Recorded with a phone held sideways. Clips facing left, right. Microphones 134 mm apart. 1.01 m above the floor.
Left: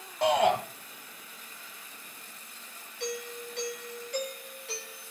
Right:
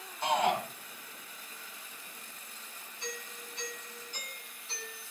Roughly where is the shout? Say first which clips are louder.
Left 5 dB; left.